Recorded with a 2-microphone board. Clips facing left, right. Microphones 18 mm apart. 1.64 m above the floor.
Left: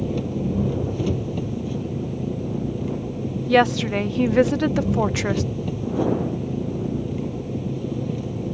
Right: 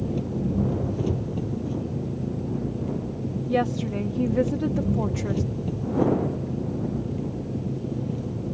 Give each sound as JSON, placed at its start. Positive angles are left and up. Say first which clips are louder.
{"t": 0.0, "sound": "an engine running", "louder": "left 2 dB", "side_deg": 25}
{"t": 3.5, "sound": "a woman speaking", "louder": "left 8 dB", "side_deg": 60}